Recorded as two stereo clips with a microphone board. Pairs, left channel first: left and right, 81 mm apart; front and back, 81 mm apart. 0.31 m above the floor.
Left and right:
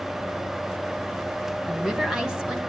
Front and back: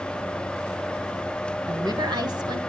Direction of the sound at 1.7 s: 170° right.